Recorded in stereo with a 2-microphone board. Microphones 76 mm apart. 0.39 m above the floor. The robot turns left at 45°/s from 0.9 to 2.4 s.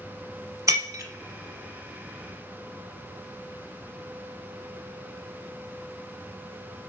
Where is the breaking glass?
50° right (ahead or behind), 0.9 m; by 1.0 s 45° right (ahead or behind), 0.9 m.